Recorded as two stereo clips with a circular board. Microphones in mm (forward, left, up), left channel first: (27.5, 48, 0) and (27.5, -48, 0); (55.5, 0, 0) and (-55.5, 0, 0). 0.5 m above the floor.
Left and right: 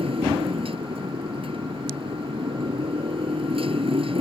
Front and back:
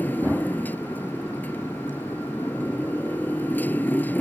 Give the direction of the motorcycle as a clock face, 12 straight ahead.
2 o'clock.